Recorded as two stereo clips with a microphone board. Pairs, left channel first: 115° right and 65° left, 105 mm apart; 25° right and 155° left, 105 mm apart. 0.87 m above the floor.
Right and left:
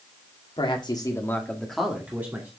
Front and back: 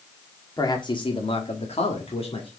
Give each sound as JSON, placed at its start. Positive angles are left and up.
{"t": 0.6, "sound": "a man speaking", "azimuth_deg": -75, "distance_m": 2.0}